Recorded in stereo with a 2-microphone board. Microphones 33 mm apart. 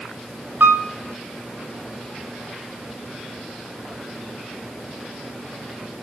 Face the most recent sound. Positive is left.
turn(degrees=-80)